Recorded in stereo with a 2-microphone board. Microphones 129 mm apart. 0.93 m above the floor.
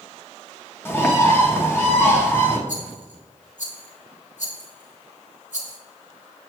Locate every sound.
0.8 s a bird: 15° left (ahead or behind), 0.9 m
2.7 s a rattle: 70° left (ahead or behind), 1.4 m